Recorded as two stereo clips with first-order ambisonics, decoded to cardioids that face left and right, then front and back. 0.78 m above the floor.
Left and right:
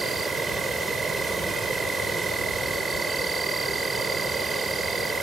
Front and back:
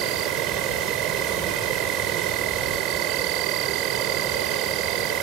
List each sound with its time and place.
0.0 s an insect: 165° right